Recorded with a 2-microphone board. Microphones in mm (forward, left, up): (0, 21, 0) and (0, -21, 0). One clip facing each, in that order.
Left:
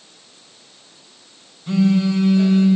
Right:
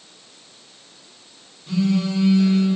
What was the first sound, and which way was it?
A phone buzzing, 70° left (ahead or behind).